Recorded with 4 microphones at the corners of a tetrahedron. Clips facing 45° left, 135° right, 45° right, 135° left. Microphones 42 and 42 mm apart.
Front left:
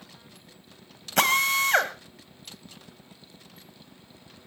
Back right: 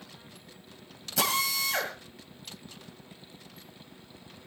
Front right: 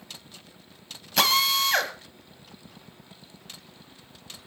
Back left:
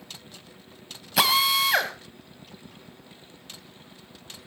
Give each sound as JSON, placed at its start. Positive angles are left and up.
{"t": 1.2, "sound": "a drill", "azimuth_deg": 55, "distance_m": 1.7}